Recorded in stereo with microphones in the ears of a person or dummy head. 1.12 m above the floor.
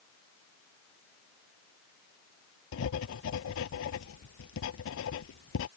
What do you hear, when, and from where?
2.7 s writing: 70° left (ahead or behind)